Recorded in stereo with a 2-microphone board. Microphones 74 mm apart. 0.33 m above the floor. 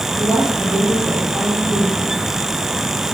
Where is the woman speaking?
15° right (ahead or behind), 7 m.